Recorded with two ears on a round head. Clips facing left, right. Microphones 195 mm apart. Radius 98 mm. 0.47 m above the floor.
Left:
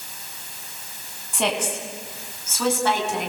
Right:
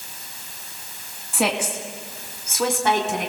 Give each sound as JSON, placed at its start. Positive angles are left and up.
{"t": 1.3, "sound": "a woman speaking", "side_deg": -5, "distance_m": 3.5}